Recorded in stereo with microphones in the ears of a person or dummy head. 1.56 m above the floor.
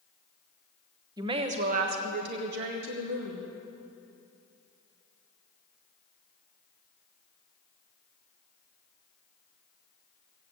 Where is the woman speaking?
20° right (ahead or behind), 1.1 m; by 3.5 s 75° right (ahead or behind), 2.5 m.